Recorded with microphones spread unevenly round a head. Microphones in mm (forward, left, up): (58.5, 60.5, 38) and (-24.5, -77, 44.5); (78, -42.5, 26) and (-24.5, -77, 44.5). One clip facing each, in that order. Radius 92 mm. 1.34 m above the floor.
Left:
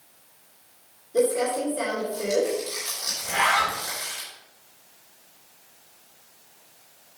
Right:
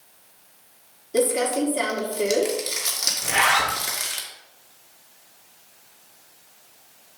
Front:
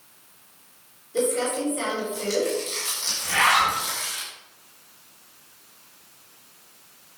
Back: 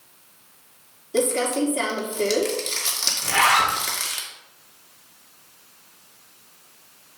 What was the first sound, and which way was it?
Crumpling, 150° right.